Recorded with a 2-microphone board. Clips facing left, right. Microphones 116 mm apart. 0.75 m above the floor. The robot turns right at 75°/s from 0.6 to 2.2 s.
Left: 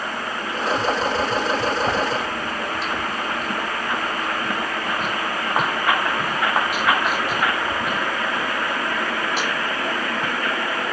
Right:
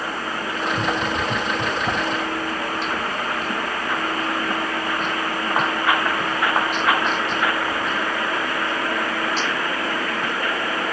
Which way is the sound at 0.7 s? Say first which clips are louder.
Left 3 dB; 65° right (ahead or behind).